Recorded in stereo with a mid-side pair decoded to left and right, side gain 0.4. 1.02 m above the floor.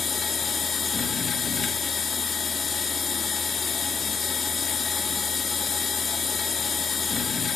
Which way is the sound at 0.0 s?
40° left.